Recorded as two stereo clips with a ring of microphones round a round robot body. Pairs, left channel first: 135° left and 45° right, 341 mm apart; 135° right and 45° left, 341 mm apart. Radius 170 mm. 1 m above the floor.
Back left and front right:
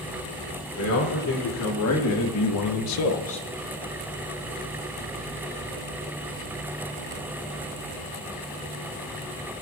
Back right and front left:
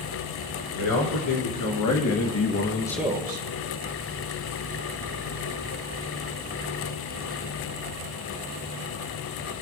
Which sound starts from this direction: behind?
A man speaking, at 0.7 s.